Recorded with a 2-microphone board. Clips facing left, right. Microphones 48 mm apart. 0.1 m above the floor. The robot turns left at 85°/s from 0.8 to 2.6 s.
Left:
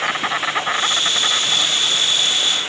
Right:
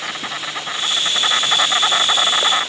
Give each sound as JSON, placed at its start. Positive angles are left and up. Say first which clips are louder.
{"t": 0.0, "sound": "an insect", "louder": "left 6 dB", "azimuth_deg": 25}